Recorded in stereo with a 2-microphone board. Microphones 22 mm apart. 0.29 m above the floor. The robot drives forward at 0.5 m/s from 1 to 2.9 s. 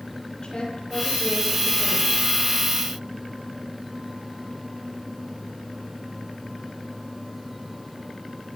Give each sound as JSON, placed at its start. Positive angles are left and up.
{"t": 0.4, "sound": "a woman speaking", "side_deg": 45, "distance_m": 7.5}